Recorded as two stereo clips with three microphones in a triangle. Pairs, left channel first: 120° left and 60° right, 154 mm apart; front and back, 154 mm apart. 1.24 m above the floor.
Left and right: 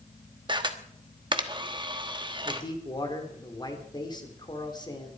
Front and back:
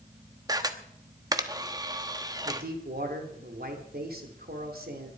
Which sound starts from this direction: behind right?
A camera shutter, at 0.5 s.